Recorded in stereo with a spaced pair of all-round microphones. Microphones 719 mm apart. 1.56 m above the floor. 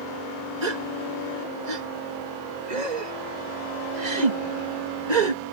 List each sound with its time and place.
0.6 s a gasp: 85° right